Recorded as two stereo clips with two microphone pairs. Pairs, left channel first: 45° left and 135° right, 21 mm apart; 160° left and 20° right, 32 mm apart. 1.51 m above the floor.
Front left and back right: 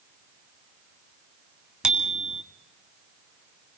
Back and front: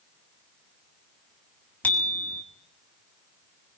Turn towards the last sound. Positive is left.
turn(degrees=-170)